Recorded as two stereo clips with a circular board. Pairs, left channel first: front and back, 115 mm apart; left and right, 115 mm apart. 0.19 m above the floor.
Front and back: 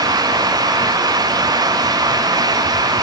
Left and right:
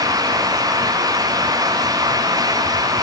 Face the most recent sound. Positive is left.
No sound to turn to.